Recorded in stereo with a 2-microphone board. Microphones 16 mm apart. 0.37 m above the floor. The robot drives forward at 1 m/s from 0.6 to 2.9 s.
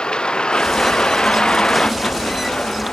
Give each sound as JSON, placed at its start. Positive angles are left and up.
{"t": 0.0, "sound": "a vehicle", "side_deg": 65}